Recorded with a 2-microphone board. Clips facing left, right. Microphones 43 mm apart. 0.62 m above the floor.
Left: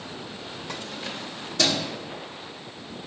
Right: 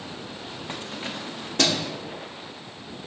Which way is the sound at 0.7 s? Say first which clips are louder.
Right 1 dB; 30° right (ahead or behind).